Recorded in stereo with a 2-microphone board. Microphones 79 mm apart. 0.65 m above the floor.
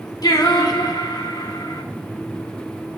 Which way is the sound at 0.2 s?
60° left (ahead or behind).